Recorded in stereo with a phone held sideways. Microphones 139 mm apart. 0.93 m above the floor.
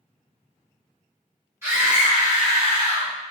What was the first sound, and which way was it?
A scream, 15° right (ahead or behind).